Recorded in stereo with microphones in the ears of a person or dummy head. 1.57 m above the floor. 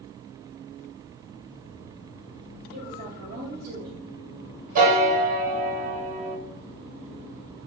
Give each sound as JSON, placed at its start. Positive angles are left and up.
{"t": 2.7, "sound": "a woman speaking", "side_deg": -55, "distance_m": 0.8}
{"t": 4.8, "sound": "a piano", "side_deg": -45, "distance_m": 0.9}